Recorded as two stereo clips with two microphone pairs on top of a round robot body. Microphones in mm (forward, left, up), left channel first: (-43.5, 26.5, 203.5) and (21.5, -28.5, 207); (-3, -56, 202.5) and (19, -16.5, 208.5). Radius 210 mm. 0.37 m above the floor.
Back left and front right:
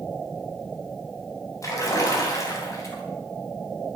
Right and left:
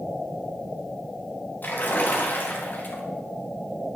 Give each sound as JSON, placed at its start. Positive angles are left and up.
{"t": 1.6, "sound": "a splash", "azimuth_deg": -170, "distance_m": 3.0}